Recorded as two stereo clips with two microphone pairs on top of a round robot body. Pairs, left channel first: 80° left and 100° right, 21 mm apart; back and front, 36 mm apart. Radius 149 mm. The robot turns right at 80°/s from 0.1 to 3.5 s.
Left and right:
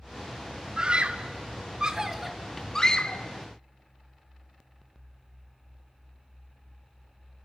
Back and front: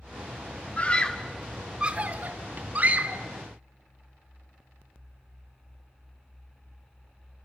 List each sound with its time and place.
0.8 s a scream: 140° right, 2.0 m; by 3.2 s 55° left, 2.0 m